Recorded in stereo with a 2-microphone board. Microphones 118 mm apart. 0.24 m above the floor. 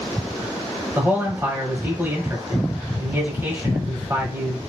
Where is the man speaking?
20° right (ahead or behind), 1.2 m.